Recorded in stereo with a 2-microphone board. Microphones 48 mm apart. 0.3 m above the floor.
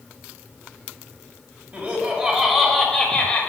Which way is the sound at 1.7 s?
25° right (ahead or behind).